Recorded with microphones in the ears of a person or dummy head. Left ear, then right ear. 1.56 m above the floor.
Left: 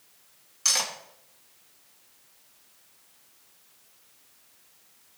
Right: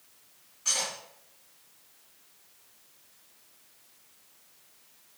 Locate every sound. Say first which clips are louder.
0.7 s cutlery clinking: left 4 dB; 65° left (ahead or behind), 1.3 m